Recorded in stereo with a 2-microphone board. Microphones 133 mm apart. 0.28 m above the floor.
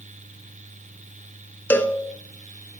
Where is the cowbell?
15° left (ahead or behind), 0.7 m.